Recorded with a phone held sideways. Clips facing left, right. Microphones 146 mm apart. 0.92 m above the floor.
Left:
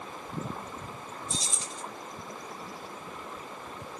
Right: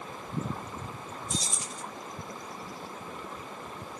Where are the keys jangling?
30° left (ahead or behind), 1.1 m.